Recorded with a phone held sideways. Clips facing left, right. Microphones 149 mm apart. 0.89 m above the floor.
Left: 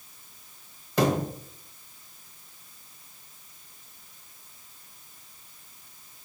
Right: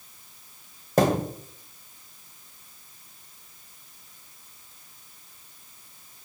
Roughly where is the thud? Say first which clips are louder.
Right 3 dB; right.